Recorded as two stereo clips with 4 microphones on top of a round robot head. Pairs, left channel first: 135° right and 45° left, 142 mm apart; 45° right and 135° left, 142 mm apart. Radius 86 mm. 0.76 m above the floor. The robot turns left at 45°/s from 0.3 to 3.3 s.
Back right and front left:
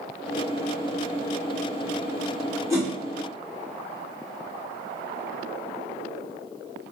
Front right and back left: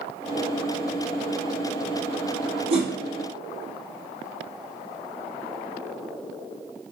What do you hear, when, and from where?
2.7 s a whoosh: 110° left, 1.3 m; by 2.9 s 100° left, 1.3 m